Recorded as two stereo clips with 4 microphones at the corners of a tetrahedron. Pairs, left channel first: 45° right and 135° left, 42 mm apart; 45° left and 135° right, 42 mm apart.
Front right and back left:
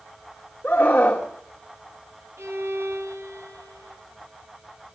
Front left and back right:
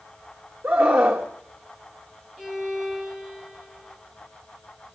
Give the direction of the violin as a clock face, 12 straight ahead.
7 o'clock.